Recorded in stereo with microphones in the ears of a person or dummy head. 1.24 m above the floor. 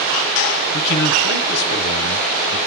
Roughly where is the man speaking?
Left.